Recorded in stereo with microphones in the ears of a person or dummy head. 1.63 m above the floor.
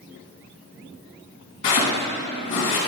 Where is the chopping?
30° left (ahead or behind), 3 m.